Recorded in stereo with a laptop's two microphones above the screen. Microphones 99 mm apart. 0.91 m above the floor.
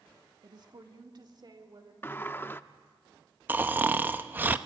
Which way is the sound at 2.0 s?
20° left (ahead or behind).